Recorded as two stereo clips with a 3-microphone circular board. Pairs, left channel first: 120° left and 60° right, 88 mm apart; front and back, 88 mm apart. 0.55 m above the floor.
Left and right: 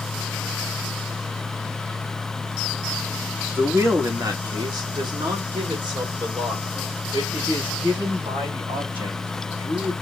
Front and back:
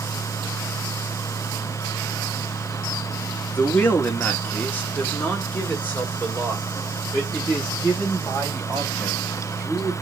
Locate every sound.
3.5 s a man speaking: 40° right, 1.0 m; by 9.9 s 75° right, 4 m